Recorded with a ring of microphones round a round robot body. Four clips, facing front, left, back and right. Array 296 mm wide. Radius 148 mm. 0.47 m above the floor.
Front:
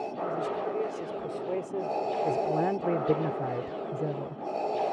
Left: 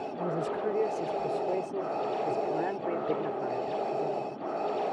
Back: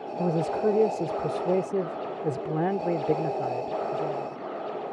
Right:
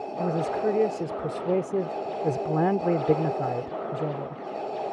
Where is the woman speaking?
155° right; by 4.4 s 55° right.